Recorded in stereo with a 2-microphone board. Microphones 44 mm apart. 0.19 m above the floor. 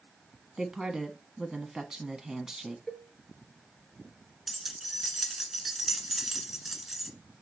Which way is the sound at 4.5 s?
5° right (ahead or behind).